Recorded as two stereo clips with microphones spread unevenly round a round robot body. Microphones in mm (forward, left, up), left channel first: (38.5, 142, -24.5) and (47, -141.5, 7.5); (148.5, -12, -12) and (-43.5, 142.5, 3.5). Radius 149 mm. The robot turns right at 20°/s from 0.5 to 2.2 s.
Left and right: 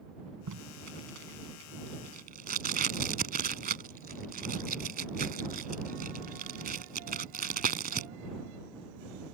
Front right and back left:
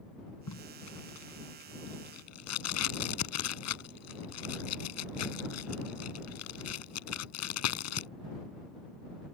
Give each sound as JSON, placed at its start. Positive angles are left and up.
{"t": 0.5, "sound": "tape being pulled", "azimuth_deg": -60}